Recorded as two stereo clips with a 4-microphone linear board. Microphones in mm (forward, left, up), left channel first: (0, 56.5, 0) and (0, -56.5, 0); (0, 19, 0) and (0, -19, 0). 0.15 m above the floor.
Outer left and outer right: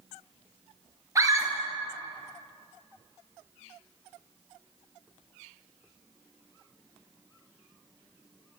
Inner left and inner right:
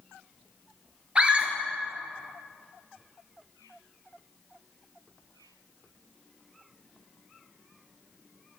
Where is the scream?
25° right (ahead or behind), 2 m.